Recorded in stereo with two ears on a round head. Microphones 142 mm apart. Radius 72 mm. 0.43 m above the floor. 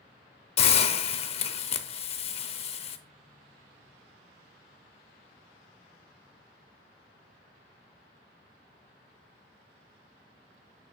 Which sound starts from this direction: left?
A hiss, at 0.6 s.